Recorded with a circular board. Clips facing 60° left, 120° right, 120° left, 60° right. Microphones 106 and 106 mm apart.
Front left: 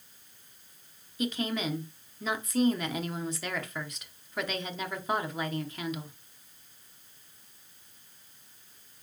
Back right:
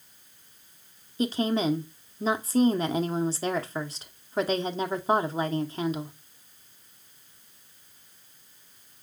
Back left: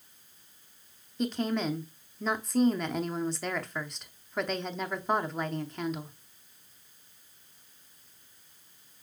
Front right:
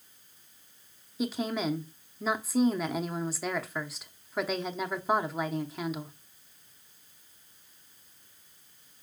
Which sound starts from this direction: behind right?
A woman speaking, at 1.2 s.